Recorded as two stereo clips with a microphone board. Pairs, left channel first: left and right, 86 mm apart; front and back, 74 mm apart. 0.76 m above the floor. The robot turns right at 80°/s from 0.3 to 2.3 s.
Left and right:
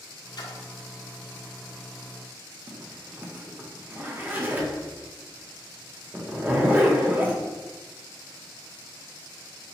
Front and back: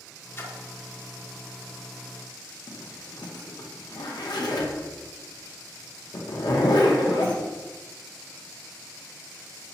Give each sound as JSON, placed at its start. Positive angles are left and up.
{"t": 0.4, "sound": "a splash", "azimuth_deg": 55, "distance_m": 0.6}
{"t": 2.7, "sound": "a zipper", "azimuth_deg": -25, "distance_m": 0.6}